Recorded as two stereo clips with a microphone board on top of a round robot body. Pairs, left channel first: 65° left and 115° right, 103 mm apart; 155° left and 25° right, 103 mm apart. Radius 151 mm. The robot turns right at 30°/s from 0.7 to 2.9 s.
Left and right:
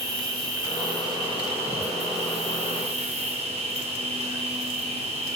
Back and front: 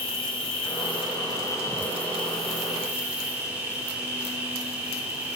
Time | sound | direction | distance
0.0 | an insect | 170° right | 3 m